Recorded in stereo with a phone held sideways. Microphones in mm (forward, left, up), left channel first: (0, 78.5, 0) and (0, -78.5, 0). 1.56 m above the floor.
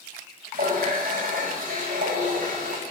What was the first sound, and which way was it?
A running tap, 60° right (ahead or behind).